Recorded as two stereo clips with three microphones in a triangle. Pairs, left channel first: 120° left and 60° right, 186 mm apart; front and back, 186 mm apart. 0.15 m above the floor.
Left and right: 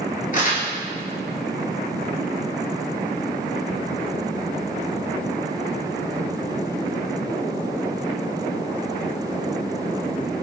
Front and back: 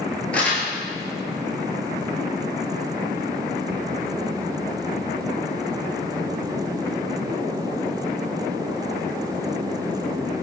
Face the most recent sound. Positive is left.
turn(degrees=80)